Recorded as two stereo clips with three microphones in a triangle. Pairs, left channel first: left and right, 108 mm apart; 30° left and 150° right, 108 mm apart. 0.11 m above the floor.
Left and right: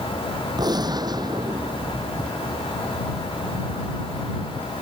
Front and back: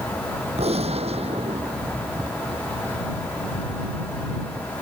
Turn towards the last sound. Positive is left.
turn(degrees=-140)